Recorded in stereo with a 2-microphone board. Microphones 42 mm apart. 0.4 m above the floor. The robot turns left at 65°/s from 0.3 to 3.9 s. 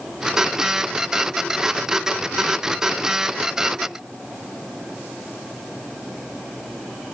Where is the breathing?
I don't hear breathing.